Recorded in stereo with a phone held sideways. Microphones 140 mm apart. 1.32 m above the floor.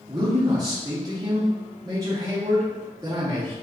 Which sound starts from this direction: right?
A man speaking, at 0.1 s.